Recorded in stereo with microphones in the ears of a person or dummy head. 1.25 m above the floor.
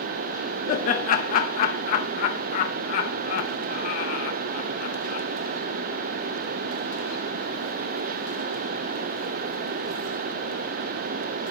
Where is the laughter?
50° left (ahead or behind), 0.6 m.